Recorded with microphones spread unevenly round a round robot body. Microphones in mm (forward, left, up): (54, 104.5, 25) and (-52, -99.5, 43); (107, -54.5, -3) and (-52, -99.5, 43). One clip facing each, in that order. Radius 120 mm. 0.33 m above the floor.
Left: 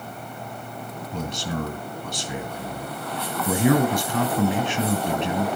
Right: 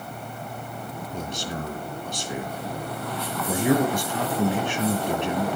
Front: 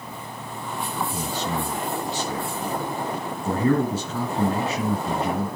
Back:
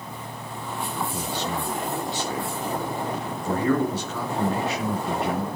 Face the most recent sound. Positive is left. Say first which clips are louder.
# left 4 dB, front 1 dB
turn(degrees=80)